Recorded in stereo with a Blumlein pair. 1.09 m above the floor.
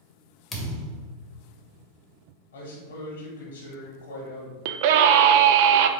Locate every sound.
0.5 s a thud: 10° left, 1.1 m
2.5 s a man speaking: 50° left, 1.4 m
4.7 s a scream: 50° right, 0.5 m